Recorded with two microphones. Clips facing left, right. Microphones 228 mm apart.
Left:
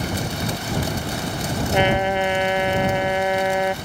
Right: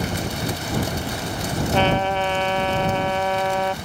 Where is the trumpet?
15° left (ahead or behind).